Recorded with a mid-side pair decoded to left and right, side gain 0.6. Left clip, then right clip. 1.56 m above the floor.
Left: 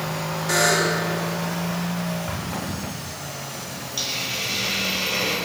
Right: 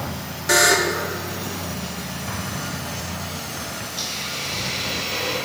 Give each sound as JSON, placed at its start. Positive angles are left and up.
{"t": 0.5, "sound": "a buzzer", "azimuth_deg": -30, "distance_m": 2.5}
{"t": 2.3, "sound": "an explosion", "azimuth_deg": 5, "distance_m": 3.0}
{"t": 4.0, "sound": "a hiss", "azimuth_deg": 45, "distance_m": 6.5}